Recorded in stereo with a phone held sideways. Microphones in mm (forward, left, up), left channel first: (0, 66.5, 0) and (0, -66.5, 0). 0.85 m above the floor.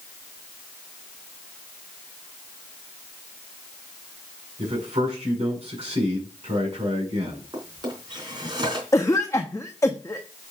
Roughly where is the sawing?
I don't hear sawing.